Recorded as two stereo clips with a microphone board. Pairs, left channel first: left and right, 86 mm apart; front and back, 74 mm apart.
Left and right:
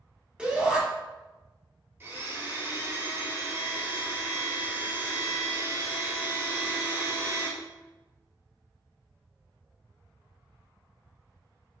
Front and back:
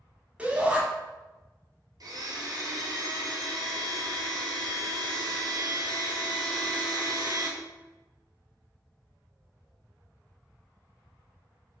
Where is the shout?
145° right, 1.0 m.